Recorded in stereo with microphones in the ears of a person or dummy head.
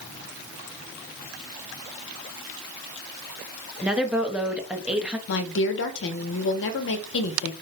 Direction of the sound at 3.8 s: Centre (ahead or behind).